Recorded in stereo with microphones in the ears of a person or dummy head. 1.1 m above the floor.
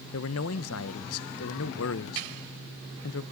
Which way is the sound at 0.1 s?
70° left (ahead or behind).